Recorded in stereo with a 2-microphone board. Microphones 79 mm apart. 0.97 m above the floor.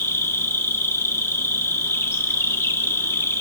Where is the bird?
I don't hear a bird.